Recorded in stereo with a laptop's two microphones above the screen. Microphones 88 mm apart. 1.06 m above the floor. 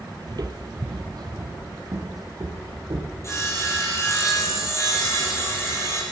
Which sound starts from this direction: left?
Sawing, at 3.2 s.